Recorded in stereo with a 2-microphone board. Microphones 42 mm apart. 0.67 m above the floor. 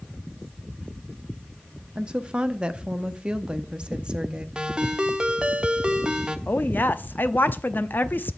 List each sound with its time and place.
1.9 s a woman speaking: 20° right (ahead or behind), 0.8 m
4.5 s a ringtone: 20° right (ahead or behind), 0.9 m
6.5 s a woman speaking: 50° left (ahead or behind), 0.7 m